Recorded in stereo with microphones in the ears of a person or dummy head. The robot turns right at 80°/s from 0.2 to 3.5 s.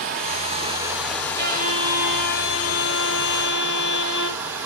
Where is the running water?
80° right, 1.1 m; by 4.7 s 175° right, 1.1 m.